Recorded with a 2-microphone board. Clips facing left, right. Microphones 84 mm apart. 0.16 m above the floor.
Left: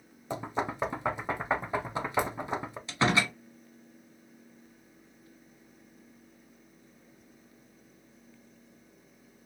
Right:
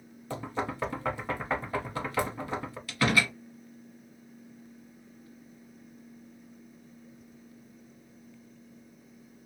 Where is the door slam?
25° left (ahead or behind), 0.8 m.